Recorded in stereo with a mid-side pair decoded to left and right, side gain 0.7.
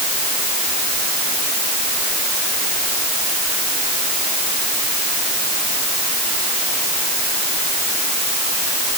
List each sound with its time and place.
Only background noise.